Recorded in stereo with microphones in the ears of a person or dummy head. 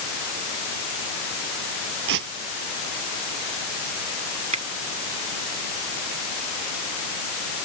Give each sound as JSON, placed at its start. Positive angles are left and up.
{"t": 2.1, "sound": "tearing paper", "side_deg": -65}
{"t": 4.5, "sound": "a finger snap", "side_deg": -35}